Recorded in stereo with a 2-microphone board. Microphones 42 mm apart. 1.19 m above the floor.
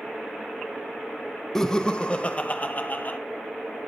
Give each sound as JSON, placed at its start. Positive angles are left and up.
{"t": 1.6, "sound": "laughter", "side_deg": 10, "distance_m": 1.2}